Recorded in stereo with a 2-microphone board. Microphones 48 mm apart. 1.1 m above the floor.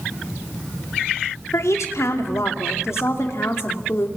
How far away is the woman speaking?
About 3 m.